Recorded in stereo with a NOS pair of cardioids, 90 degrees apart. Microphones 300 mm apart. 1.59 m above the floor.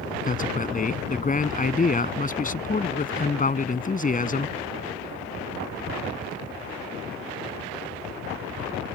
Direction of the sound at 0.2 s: 25° left.